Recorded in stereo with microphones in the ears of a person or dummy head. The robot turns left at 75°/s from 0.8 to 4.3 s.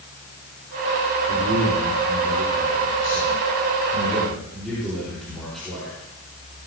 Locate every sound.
1.3 s a man speaking: 130° right, 4.5 m; by 5.9 s 5° left, 4.5 m